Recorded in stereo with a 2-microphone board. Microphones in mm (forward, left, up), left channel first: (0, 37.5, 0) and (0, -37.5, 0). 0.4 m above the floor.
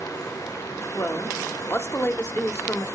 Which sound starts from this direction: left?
A woman speaking, at 0.9 s.